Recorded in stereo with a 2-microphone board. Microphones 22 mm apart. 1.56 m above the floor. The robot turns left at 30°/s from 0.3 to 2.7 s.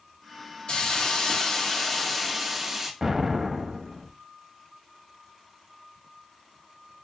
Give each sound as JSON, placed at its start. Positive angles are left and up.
{"t": 0.7, "sound": "a hiss", "azimuth_deg": 50, "distance_m": 0.7}
{"t": 3.0, "sound": "an explosion", "side_deg": -20, "distance_m": 0.6}